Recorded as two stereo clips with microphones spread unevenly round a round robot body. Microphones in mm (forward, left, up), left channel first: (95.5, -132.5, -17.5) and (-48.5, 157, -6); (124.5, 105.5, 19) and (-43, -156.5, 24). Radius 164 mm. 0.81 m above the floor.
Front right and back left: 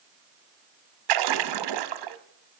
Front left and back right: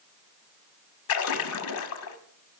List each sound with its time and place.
1.1 s a splash: 105° left, 0.8 m